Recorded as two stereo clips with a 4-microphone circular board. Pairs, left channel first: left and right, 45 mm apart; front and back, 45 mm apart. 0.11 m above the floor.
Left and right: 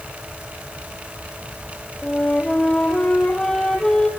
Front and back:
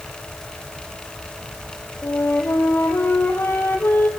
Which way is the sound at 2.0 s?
15° left.